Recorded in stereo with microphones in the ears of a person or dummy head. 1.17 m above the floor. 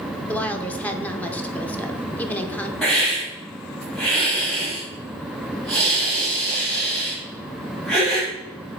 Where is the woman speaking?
10° left (ahead or behind), 0.8 m.